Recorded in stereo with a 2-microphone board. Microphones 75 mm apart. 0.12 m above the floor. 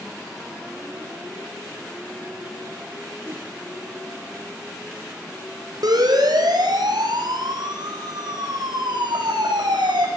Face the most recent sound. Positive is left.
turn(degrees=-80)